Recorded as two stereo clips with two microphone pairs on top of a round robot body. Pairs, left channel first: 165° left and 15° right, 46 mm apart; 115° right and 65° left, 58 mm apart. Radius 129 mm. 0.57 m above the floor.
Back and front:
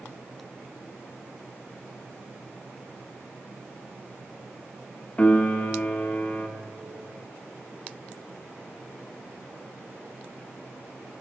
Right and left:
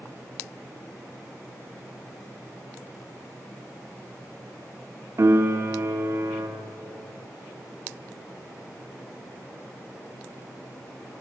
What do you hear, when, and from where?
5.2 s a piano: 105° left, 0.7 m